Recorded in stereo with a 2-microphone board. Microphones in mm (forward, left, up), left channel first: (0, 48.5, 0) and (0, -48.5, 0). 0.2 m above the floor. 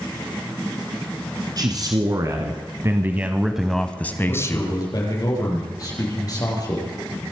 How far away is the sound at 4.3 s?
About 5.5 m.